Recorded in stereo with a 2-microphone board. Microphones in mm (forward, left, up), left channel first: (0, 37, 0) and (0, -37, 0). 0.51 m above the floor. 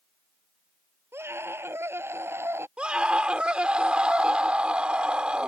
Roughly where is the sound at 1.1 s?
Right.